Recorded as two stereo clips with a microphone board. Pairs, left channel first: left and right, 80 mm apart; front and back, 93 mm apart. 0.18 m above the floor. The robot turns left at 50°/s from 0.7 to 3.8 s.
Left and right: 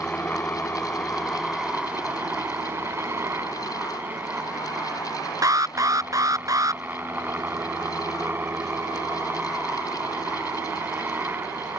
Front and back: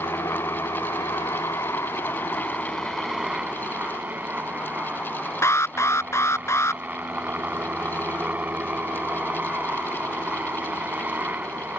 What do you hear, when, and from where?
0.0 s a helicopter: 30° left; by 11.8 s 125° right
5.4 s an alarm: 55° right